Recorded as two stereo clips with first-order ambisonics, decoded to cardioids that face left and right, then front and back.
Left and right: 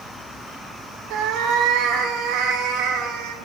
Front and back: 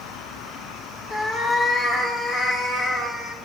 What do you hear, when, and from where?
1.1 s a cat meowing: 60° right, 1.4 m